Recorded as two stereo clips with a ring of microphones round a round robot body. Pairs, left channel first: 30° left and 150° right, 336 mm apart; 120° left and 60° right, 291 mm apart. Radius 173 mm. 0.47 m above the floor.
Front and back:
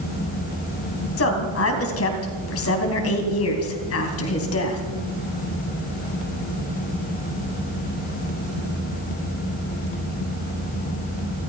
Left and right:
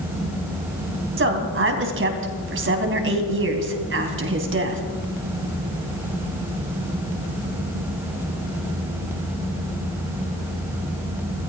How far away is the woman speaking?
About 3 m.